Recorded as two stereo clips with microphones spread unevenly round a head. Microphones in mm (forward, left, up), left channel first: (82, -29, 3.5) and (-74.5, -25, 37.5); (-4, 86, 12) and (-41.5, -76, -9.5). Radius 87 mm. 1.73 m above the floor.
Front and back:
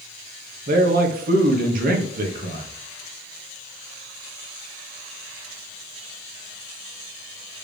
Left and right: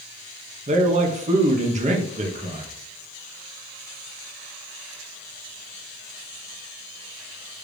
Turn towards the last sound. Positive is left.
turn(degrees=-155)